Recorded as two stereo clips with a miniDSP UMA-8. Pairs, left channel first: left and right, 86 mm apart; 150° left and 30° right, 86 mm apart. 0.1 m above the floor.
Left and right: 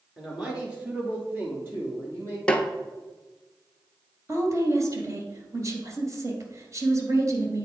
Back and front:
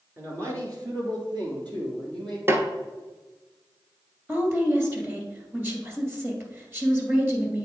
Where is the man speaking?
5° right, 1.5 m; by 2.4 s 35° right, 3.5 m.